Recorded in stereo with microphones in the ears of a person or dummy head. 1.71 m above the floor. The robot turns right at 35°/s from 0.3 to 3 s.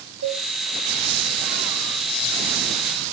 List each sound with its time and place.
0.2 s a cowbell: 85° right, 2.5 m; by 0.4 s 90° right, 2.5 m